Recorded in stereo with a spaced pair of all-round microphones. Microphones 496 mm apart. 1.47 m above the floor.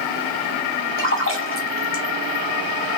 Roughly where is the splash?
Left.